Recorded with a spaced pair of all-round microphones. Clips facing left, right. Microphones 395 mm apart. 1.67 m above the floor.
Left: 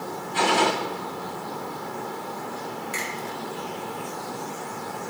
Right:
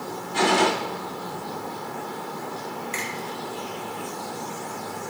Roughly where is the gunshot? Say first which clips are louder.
Right 2 dB; right.